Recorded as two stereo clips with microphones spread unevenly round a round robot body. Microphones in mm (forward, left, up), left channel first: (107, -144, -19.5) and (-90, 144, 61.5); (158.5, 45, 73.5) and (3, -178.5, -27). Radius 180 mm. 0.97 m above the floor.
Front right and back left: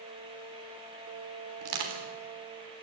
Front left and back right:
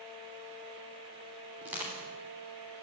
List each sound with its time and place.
1.6 s crushing: 155° left, 3.5 m